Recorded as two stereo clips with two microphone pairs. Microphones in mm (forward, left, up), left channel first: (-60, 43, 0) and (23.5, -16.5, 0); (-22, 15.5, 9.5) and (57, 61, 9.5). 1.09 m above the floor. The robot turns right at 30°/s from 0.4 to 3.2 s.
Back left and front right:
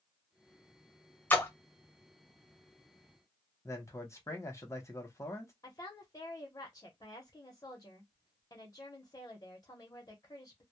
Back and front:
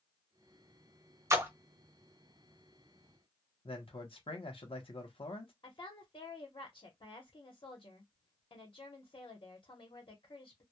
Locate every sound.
1.3 s a splash: 80° left, 0.6 m; by 1.5 s 85° left, 0.6 m
3.6 s a man speaking: 155° right, 0.8 m
5.6 s a woman speaking: 165° right, 0.8 m